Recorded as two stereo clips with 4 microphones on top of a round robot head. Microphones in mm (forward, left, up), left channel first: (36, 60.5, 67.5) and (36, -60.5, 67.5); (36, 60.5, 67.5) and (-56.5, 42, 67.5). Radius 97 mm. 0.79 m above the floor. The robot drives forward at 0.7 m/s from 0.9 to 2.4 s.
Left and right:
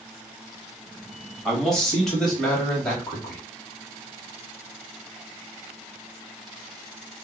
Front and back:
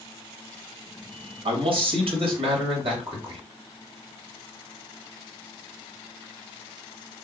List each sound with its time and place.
1.4 s a man speaking: 175° left, 1.4 m